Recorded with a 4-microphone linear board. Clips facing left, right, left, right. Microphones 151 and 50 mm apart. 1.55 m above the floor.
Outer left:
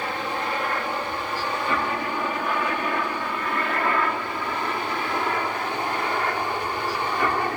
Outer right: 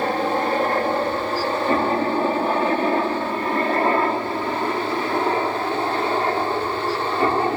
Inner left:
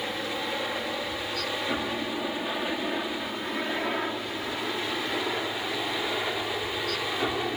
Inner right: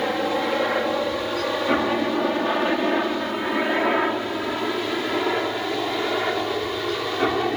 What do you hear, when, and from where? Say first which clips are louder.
0.0 s a helicopter: outer right 8 dB, inner right 9 dB; 40° right (ahead or behind); by 7.6 s 25° right (ahead or behind)